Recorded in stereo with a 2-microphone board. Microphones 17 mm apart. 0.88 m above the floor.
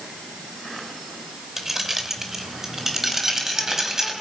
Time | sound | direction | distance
1.6 | keys jangling | 20° right (ahead or behind) | 2.5 m